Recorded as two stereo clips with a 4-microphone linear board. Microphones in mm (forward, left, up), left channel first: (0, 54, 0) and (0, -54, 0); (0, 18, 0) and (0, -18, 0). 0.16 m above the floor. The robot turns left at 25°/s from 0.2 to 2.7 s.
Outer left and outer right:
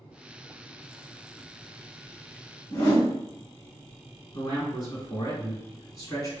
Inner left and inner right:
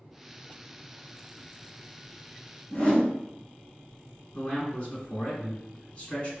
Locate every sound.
2.7 s a whoosh: 25° left (ahead or behind), 1.7 m
4.3 s a man speaking: 35° left (ahead or behind), 2.0 m